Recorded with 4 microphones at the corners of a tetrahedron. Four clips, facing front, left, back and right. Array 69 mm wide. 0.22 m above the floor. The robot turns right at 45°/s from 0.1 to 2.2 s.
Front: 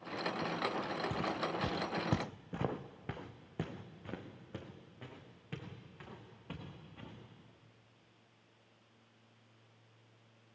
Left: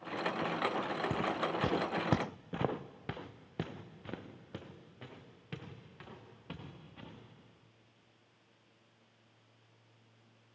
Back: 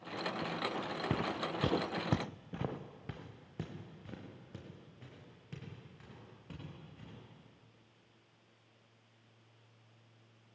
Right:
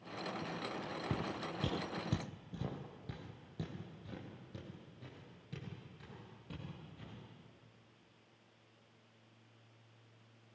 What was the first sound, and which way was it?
Footsteps, 165° left.